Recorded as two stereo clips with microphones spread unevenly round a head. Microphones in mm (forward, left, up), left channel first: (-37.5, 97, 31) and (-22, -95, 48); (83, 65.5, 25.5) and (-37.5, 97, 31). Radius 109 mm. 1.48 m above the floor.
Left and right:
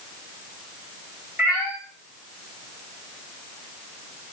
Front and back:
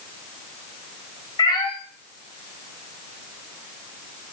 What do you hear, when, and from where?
1.4 s a cat meowing: 10° right, 1.4 m